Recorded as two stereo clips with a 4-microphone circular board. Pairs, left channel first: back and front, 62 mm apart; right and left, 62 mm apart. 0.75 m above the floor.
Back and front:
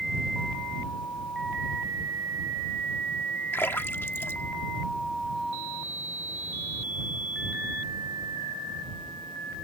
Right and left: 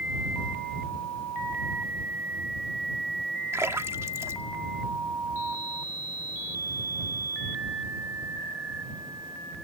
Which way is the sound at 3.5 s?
130° left.